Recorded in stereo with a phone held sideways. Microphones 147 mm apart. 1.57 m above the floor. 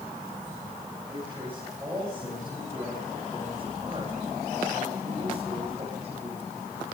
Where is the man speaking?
10° right (ahead or behind), 10 m; by 6.7 s 50° right (ahead or behind), 10.5 m.